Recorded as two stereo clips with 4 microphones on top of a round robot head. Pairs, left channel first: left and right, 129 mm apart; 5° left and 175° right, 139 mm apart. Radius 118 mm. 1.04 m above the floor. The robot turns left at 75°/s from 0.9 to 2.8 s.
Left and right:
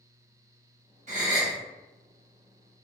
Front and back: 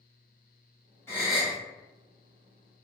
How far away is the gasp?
About 1.0 m.